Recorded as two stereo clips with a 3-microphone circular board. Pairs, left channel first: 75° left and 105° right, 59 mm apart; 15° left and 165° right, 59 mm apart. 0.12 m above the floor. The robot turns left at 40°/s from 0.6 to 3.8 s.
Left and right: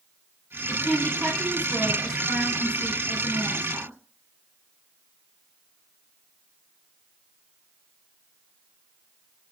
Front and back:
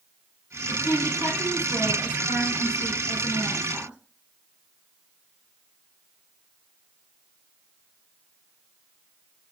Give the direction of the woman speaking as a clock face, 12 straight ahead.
11 o'clock.